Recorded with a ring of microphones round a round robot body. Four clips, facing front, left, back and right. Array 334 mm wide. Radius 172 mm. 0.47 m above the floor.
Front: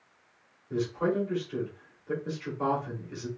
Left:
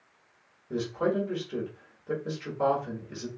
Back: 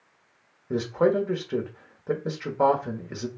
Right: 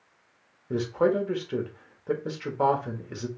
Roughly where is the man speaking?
Behind right.